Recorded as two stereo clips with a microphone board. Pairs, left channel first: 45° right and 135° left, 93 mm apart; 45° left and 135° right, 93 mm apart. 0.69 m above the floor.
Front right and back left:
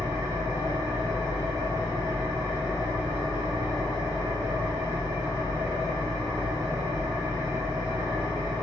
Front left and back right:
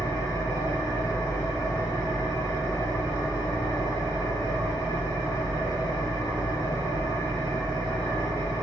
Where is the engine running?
90° left, 1.3 m.